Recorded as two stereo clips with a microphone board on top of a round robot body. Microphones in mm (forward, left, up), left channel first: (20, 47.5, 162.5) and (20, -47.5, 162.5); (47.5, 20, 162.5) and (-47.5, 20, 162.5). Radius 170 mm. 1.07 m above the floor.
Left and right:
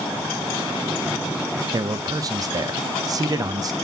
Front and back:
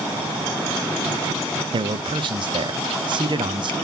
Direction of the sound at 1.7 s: 145° right.